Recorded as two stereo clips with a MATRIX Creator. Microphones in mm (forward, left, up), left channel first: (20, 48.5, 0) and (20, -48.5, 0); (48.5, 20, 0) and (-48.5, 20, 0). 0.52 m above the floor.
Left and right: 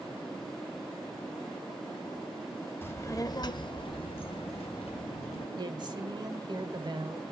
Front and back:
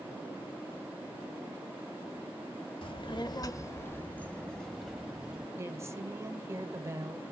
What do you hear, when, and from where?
2.8 s a child speaking: 20° left, 1.0 m; by 5.5 s 95° left, 1.9 m
5.5 s a woman speaking: 125° right, 1.8 m